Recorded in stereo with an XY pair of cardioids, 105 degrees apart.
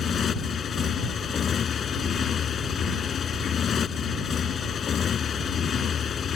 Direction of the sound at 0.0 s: 50° left.